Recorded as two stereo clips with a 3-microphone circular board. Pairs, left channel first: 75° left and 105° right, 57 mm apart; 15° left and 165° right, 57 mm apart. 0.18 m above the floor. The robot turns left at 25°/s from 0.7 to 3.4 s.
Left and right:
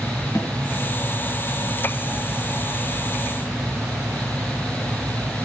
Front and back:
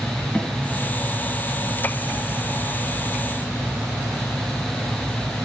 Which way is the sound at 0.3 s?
90° left.